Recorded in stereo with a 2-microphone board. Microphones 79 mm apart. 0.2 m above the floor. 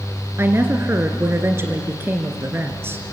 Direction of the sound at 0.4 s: 30° right (ahead or behind).